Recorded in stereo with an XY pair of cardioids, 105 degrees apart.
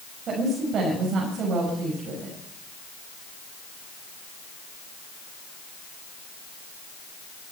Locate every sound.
0.3 s a woman speaking: 60° right, 6 m